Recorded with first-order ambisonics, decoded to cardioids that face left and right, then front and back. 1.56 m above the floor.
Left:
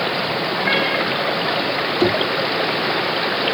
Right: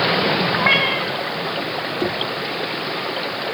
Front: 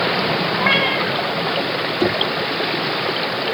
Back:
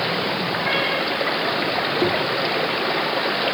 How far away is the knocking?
About 0.7 m.